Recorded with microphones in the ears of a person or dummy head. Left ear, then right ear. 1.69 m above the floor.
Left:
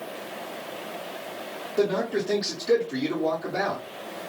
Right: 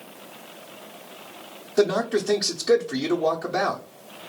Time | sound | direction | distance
1.8 | a man speaking | 55° right (ahead or behind) | 0.8 m